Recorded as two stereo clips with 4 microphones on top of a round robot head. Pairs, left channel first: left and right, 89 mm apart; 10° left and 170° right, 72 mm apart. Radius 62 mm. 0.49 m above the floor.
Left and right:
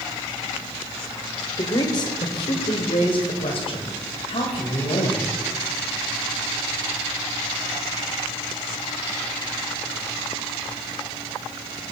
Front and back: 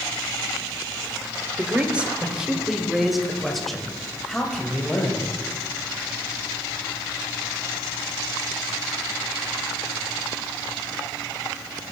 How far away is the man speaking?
About 1.7 m.